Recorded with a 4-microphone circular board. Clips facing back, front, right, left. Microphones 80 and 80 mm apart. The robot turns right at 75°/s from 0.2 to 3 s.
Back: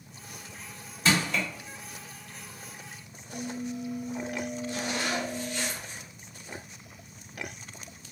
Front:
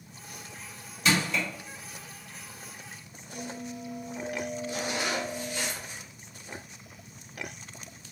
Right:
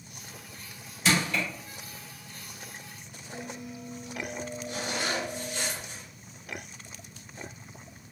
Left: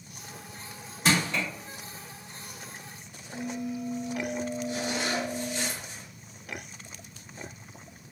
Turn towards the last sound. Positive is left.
turn(degrees=-80)